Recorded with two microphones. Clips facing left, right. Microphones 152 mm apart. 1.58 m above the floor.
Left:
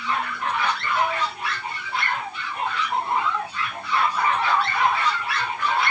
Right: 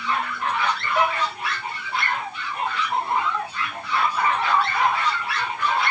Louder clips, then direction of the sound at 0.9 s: Right 3 dB; 70° right (ahead or behind).